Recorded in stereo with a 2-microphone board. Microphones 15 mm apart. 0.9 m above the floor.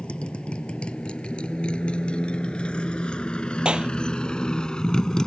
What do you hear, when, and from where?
0.0 s a motorcycle: 85° left; by 5.3 s 40° left (ahead or behind)
3.6 s a clap: 65° right (ahead or behind)